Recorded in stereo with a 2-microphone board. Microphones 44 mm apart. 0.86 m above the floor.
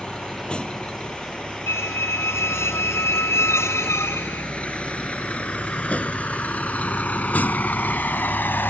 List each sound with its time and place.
0.0 s a vehicle: 20° left (ahead or behind); by 8.7 s 45° left (ahead or behind)
1.7 s a squeak: 70° left (ahead or behind)